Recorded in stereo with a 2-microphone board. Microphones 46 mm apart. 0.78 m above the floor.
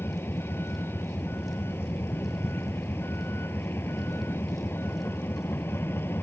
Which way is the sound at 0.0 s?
60° left (ahead or behind).